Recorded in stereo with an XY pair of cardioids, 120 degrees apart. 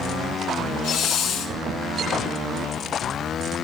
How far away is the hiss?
About 1.4 m.